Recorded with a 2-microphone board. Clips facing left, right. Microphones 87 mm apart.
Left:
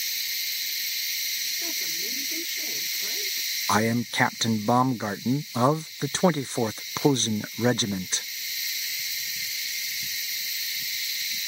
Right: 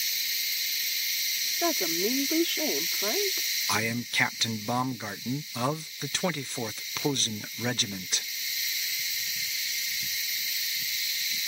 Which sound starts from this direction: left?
A man speaking, at 3.7 s.